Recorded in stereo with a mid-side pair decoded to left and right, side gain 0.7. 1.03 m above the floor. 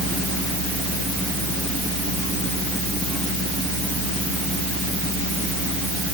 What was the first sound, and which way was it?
Only background noise.